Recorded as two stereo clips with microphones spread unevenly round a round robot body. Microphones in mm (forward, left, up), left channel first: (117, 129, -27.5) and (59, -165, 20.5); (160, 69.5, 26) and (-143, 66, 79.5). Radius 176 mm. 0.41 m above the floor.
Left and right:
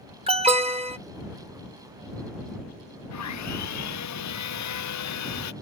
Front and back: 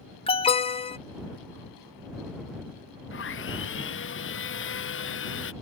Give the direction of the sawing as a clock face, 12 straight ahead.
10 o'clock.